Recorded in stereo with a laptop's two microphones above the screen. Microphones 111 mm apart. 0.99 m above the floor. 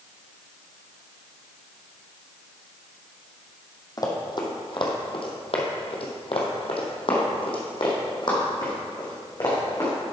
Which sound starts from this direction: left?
Running footsteps, at 4.0 s.